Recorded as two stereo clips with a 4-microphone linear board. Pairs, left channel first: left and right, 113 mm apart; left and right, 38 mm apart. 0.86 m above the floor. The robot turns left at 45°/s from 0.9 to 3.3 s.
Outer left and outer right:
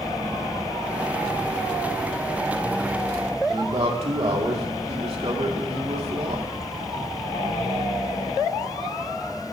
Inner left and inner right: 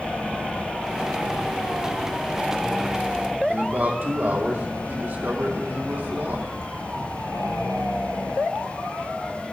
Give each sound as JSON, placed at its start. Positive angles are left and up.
{"t": 3.5, "sound": "a man speaking", "side_deg": -60, "distance_m": 2.5}